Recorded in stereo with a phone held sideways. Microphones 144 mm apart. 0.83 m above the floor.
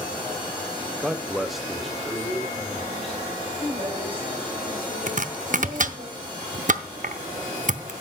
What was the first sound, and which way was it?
A man speaking, 10° right (ahead or behind).